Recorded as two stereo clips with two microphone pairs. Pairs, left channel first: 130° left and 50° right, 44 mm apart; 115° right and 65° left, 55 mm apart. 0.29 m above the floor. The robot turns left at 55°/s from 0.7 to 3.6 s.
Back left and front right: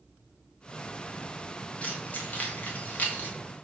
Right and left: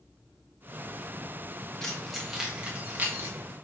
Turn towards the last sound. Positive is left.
turn(degrees=75)